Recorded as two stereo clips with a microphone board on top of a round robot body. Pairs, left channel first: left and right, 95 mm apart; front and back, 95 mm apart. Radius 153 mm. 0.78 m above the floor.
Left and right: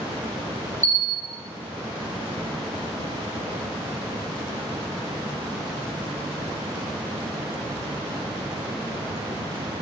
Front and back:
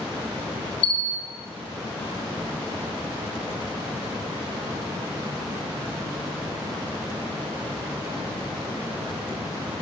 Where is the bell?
10° left, 4 m.